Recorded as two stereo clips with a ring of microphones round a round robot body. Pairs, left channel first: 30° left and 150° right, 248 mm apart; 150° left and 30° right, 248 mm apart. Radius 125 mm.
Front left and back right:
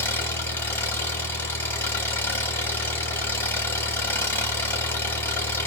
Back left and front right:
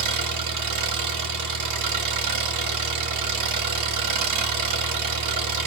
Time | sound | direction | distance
0.0 | an engine running | 50° right | 0.9 m